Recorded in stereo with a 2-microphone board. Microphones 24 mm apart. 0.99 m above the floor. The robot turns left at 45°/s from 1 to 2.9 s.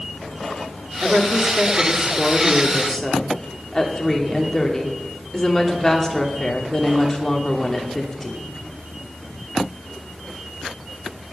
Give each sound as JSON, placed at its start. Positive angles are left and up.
{"t": 1.0, "sound": "a woman speaking", "azimuth_deg": -110, "distance_m": 2.5}